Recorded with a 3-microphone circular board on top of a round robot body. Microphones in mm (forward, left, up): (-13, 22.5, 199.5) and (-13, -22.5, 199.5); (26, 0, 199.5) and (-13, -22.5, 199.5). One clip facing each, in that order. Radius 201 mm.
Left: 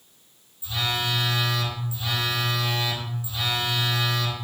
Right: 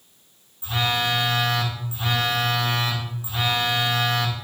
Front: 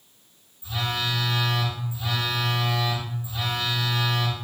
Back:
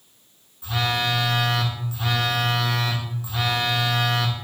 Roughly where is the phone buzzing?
Behind right.